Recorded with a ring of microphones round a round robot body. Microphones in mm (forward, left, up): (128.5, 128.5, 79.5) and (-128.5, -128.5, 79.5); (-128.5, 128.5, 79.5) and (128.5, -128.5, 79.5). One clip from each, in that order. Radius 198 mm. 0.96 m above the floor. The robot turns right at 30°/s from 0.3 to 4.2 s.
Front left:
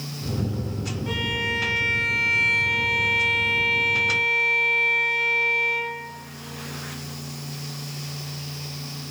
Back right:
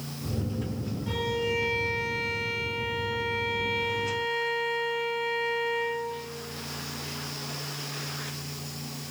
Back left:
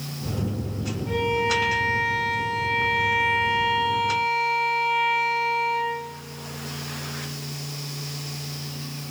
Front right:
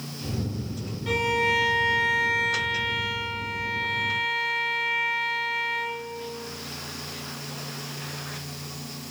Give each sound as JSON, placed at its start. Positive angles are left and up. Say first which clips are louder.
{"t": 1.1, "sound": "a violin", "louder": "front left 3 dB, even", "azimuth_deg": -25, "distance_m": 0.6}